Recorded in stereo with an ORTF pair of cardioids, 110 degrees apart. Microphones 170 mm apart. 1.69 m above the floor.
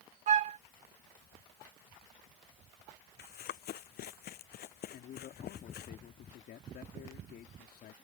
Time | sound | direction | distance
0.3 | a flute | 50° right | ?
3.2 | running footsteps | 65° left | ?
4.9 | a man speaking | 65° left | ?